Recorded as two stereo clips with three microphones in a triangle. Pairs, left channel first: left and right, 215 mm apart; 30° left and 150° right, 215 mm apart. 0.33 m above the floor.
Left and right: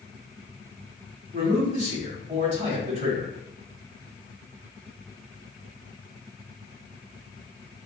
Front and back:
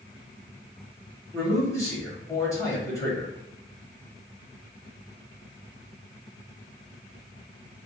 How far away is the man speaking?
About 1.4 m.